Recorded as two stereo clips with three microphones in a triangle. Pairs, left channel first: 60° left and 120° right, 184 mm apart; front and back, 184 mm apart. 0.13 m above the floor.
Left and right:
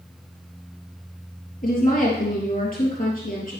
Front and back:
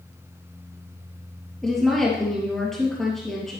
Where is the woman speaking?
90° left, 3 m.